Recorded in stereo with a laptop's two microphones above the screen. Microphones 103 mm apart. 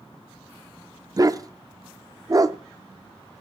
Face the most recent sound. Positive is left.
turn(degrees=-35)  # may be behind; listen again after turning